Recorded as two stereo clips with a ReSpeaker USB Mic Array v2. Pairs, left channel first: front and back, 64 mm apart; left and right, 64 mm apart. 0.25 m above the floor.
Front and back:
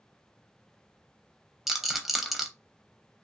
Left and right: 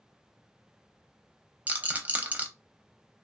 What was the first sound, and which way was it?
A rattle, 100° right.